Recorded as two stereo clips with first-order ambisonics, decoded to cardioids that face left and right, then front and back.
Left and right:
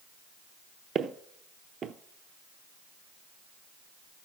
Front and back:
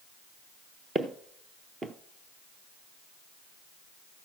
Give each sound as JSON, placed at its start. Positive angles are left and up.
{"t": 0.9, "sound": "footsteps", "azimuth_deg": -125, "distance_m": 0.6}